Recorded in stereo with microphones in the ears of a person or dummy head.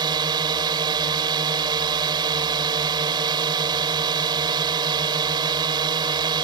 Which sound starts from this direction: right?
A drone, at 0.0 s.